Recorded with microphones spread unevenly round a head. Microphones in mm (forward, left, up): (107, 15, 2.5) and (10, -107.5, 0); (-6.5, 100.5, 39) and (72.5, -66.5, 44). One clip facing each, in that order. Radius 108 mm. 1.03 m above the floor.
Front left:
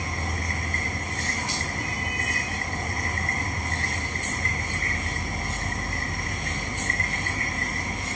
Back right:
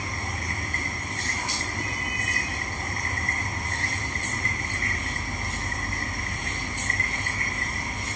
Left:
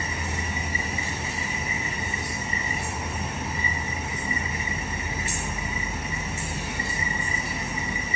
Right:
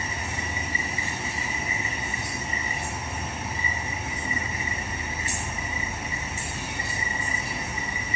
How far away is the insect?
About 1.2 m.